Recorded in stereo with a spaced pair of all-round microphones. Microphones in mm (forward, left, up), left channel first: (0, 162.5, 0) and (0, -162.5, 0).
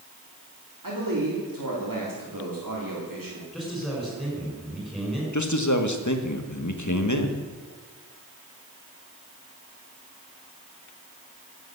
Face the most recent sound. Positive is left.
turn(degrees=60)  # may be behind; listen again after turning